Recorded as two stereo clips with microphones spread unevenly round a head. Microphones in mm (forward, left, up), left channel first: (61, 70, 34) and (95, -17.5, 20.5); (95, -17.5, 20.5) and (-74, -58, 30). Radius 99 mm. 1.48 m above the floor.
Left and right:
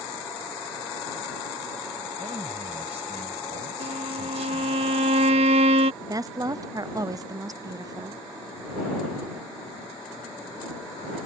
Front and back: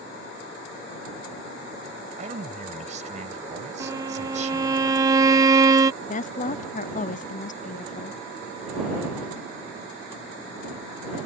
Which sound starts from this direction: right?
A violin, at 3.8 s.